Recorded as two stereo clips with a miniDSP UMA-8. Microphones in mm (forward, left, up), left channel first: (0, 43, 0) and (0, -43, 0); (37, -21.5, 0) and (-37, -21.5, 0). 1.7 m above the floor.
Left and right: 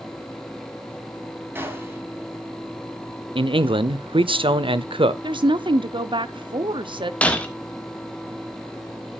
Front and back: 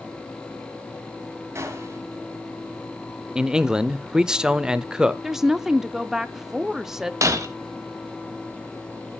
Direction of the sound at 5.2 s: 95° right.